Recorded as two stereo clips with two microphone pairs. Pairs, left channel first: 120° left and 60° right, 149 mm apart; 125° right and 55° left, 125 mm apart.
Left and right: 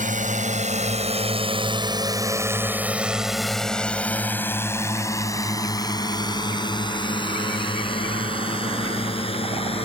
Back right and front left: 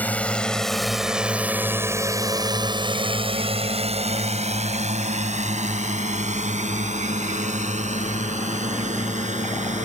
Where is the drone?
50° right; by 9.9 s 70° left.